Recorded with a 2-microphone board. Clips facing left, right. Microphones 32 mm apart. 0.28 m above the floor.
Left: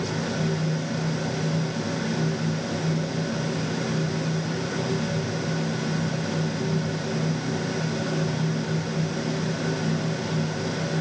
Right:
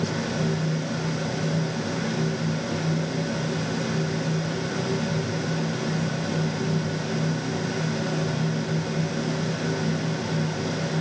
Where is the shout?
I don't hear a shout.